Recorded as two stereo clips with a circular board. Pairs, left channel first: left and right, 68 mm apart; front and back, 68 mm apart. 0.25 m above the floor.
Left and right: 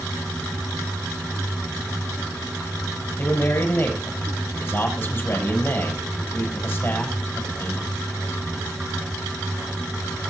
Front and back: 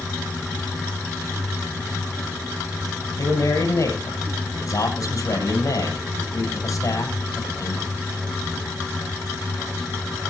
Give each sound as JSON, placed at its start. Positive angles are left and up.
{"t": 3.2, "sound": "a man speaking", "azimuth_deg": 35, "distance_m": 7.5}